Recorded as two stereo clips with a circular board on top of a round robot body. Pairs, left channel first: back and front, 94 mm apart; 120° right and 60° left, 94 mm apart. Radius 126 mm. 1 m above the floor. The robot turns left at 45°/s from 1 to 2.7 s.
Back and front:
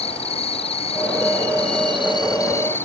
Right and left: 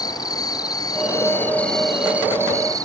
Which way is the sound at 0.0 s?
170° right.